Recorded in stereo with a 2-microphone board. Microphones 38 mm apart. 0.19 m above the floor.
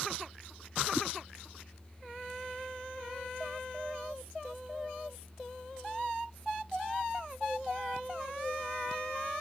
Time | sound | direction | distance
0.9 | a whoosh | 5° right (ahead or behind) | ?